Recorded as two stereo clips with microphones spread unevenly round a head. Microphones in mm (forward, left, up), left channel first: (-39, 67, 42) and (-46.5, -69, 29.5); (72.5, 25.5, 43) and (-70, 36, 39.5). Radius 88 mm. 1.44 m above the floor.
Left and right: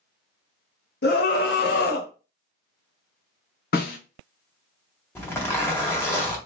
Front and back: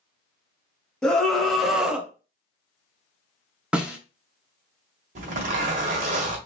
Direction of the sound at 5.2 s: 150° left.